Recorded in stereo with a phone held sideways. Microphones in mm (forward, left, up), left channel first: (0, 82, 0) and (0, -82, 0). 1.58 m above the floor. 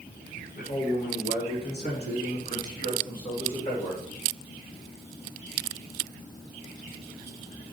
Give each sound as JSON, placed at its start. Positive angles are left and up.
{"t": 0.6, "sound": "a man speaking", "side_deg": 75, "distance_m": 1.7}